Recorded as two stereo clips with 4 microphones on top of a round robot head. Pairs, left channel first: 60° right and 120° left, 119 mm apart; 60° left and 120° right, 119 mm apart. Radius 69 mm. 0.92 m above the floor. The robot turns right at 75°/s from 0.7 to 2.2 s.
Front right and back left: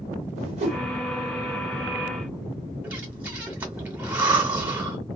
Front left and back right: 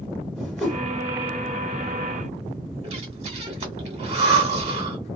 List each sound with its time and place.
0.3 s a whoosh: 140° left, 1.8 m; by 0.8 s 150° left, 1.8 m
2.8 s breathing: 160° right, 1.5 m